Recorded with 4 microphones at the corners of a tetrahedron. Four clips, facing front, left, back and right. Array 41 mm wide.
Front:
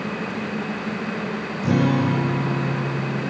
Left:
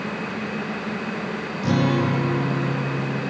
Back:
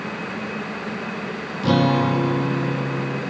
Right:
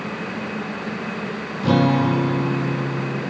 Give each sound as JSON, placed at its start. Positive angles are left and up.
{"t": 1.6, "sound": "a guitar", "azimuth_deg": -160, "distance_m": 4.5}